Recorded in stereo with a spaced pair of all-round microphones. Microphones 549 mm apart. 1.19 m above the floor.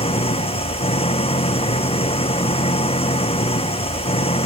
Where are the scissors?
I don't hear scissors.